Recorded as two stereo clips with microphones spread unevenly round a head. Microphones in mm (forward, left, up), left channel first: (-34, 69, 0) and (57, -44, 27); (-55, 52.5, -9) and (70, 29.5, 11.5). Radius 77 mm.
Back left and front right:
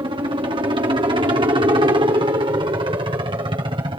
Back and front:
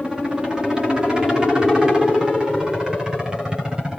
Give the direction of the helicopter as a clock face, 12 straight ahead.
3 o'clock.